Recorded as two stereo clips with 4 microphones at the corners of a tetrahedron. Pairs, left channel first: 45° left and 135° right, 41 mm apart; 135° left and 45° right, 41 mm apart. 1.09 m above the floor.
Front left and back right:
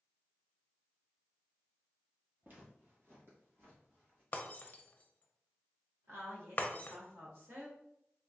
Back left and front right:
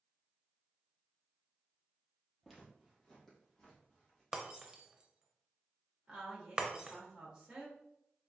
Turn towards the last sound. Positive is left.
turn(degrees=-115)